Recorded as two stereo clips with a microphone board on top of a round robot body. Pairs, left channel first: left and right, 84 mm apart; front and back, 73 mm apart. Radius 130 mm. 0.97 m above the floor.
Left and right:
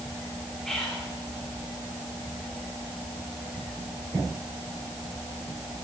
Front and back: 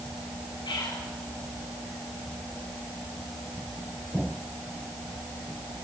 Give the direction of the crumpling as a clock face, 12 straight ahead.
No crumpling in this recording.